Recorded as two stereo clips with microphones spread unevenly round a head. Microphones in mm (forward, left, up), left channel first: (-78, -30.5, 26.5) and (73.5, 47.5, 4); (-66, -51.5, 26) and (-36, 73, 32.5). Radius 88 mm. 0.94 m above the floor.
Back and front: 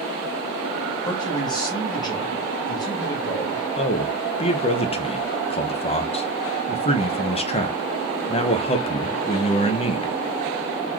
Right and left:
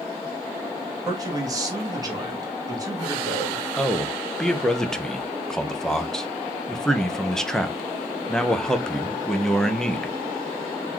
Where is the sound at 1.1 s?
140° left, 1.8 m.